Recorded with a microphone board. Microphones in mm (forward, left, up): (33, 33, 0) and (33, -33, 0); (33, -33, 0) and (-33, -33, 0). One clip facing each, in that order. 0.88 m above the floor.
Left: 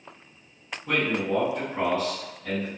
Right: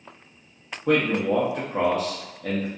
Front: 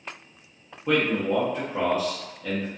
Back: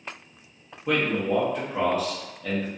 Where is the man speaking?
85° right, 0.6 m.